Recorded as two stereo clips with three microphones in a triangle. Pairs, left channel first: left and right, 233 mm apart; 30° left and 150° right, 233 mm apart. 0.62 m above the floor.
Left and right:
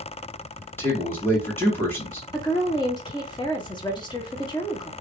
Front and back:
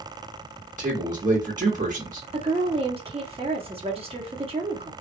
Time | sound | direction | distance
0.8 | a man speaking | 170° left | 1.5 m
2.3 | a woman speaking | 155° left | 0.9 m